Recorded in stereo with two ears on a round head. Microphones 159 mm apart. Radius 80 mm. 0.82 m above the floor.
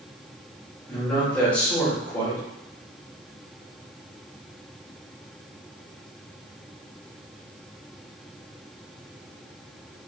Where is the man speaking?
10° left (ahead or behind), 1.3 m.